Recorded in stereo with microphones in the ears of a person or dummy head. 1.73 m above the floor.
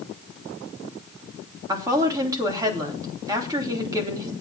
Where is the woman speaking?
20° right (ahead or behind), 3 m.